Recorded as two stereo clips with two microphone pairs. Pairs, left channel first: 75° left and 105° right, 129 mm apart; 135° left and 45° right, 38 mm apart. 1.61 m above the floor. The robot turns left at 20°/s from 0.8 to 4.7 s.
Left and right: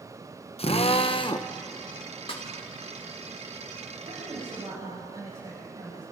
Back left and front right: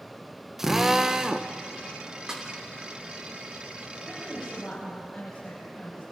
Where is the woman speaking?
140° right, 9 m; by 6.0 s 150° right, 9 m.